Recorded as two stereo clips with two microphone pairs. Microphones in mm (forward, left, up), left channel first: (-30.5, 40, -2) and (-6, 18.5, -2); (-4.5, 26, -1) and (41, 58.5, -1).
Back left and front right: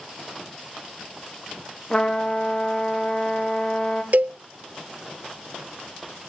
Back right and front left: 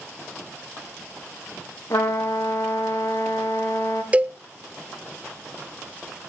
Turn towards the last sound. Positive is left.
turn(degrees=-20)